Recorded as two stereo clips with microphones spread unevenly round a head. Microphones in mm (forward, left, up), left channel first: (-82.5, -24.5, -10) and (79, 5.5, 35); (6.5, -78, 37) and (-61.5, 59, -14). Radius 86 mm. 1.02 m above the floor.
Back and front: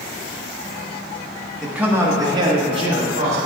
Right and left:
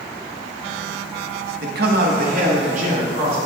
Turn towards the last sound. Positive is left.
turn(degrees=65)